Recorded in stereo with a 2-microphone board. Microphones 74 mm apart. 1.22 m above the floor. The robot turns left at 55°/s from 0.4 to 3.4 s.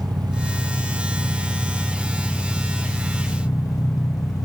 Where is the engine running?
65° right, 1.3 m; by 4.5 s 130° left, 1.3 m.